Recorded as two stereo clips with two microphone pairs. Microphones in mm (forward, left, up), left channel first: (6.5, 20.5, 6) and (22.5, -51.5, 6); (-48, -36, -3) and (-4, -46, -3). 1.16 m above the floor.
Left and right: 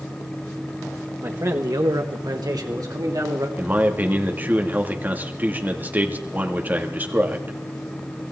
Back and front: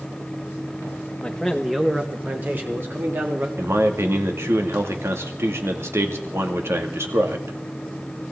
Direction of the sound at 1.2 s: 120° right.